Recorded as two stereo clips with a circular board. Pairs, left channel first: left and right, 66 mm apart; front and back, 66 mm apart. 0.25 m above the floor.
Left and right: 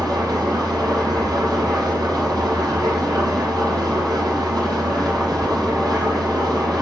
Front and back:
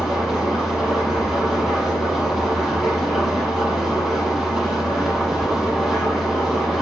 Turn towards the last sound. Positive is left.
turn(degrees=-90)